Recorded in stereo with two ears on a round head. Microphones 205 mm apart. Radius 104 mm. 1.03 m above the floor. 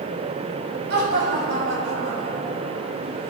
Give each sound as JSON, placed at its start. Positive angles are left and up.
{"t": 0.9, "sound": "laughter", "side_deg": -50, "distance_m": 6.5}